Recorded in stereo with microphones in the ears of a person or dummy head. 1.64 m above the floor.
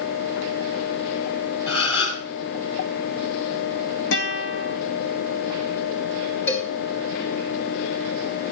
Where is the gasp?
35° left (ahead or behind), 8 m.